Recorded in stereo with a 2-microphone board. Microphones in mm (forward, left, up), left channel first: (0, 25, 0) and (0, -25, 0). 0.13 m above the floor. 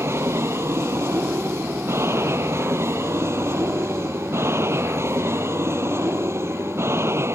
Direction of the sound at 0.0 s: 60° right (ahead or behind).